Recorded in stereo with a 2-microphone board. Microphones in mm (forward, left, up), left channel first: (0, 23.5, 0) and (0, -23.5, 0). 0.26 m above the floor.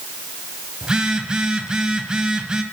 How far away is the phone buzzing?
About 1.5 m.